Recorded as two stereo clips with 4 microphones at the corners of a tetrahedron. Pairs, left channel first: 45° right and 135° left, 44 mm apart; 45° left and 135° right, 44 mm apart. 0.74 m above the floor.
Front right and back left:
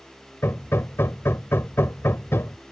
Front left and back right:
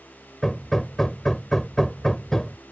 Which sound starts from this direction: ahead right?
Hammering, at 0.4 s.